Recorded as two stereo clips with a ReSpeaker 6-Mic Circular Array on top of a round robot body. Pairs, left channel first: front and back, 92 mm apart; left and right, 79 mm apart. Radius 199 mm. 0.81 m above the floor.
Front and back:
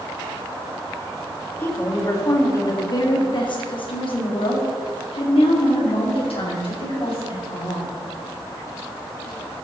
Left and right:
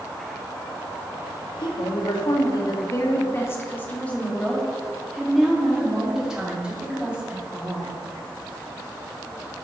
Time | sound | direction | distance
1.6 | a woman speaking | 65° left | 2.0 m